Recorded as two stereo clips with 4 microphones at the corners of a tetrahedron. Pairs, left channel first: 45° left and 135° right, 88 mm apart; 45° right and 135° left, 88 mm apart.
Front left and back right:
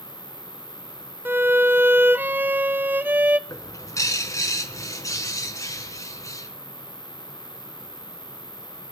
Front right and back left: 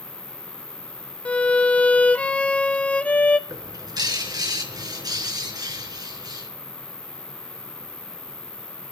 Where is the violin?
100° right, 0.6 m.